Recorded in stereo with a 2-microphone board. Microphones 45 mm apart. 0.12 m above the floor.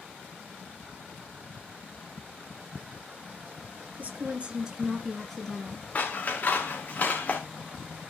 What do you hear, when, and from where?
4.0 s a woman speaking: 40° right (ahead or behind), 2 m; by 5.8 s 25° left (ahead or behind), 1.8 m
6.0 s scissors: 40° left (ahead or behind), 2.5 m